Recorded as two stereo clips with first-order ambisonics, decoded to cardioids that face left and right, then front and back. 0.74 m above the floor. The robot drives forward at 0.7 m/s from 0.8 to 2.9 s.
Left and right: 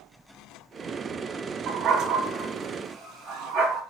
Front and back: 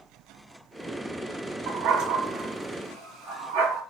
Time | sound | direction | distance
1.7 | a dog barking | 145° right | 2 m